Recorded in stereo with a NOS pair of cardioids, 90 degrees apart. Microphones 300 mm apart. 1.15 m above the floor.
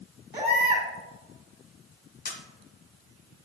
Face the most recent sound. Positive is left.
turn(degrees=30)